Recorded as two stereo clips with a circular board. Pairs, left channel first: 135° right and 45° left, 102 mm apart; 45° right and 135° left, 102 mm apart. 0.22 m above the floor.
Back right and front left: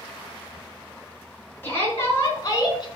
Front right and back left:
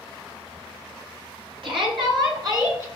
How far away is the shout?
About 3.5 m.